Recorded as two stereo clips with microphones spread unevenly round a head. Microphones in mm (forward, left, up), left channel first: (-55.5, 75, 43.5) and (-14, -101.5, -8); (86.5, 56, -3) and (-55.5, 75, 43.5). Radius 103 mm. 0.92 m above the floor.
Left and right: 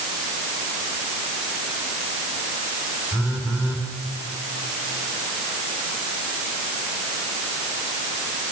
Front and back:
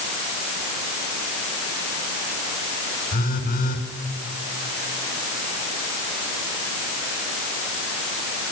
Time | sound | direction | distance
3.1 | a phone buzzing | 5° left | 7 m